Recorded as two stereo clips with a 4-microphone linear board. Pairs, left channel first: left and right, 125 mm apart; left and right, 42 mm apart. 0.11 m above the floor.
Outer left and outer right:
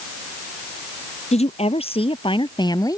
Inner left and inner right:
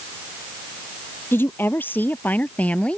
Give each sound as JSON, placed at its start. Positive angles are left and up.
{"t": 1.3, "sound": "a woman speaking", "side_deg": 60}